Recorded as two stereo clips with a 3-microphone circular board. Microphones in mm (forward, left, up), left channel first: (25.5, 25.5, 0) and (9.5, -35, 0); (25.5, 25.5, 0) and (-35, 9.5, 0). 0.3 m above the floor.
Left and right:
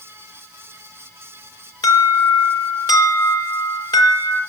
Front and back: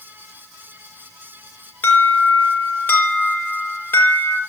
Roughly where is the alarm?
Left.